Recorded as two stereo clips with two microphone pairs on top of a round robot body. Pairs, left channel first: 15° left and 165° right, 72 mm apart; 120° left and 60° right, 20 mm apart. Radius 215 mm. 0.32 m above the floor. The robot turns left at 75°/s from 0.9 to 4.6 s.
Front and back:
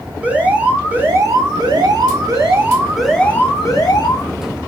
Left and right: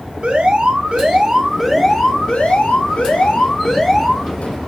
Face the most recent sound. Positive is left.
turn(degrees=-15)